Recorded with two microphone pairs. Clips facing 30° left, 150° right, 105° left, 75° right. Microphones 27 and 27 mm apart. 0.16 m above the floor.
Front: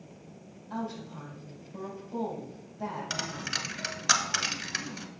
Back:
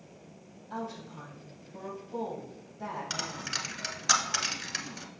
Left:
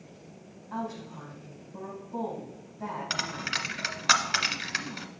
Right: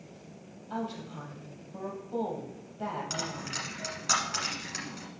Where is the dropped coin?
105° left, 0.9 m.